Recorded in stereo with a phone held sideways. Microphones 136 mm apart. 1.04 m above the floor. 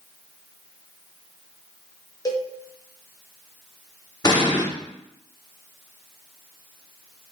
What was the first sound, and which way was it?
A cowbell, 30° left (ahead or behind).